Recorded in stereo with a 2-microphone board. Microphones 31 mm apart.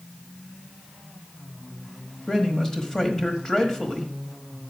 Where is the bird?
I don't hear a bird.